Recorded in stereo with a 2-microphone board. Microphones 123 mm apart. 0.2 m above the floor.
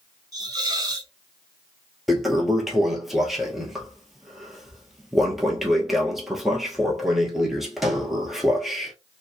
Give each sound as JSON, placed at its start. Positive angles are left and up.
{"t": 0.3, "sound": "a hiss", "side_deg": -30, "distance_m": 0.7}
{"t": 2.1, "sound": "a toilet flushing", "side_deg": 0, "distance_m": 1.0}